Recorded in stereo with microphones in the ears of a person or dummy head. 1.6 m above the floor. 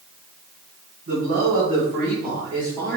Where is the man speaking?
50° right (ahead or behind), 1.6 m; by 3.0 s 10° right (ahead or behind), 2.0 m.